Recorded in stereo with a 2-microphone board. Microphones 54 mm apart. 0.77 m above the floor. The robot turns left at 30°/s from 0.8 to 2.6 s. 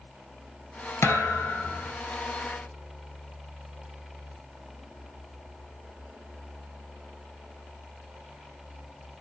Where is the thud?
60° left (ahead or behind), 1.3 m; by 1.9 s 50° left (ahead or behind), 1.3 m.